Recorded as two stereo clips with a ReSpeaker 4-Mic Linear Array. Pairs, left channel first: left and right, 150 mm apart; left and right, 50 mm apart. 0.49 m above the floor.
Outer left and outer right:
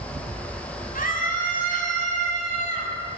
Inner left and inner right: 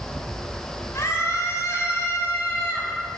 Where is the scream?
75° left (ahead or behind), 4.5 m; by 2.9 s 55° left (ahead or behind), 5 m.